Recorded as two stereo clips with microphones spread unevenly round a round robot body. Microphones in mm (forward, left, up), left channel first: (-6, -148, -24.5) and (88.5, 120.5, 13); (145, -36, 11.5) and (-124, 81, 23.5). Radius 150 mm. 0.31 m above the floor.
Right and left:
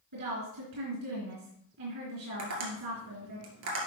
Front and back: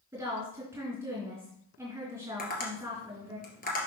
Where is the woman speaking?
75° left, 4 m.